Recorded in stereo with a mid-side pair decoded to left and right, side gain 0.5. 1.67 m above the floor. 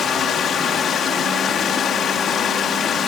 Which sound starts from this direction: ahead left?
Running water, at 0.0 s.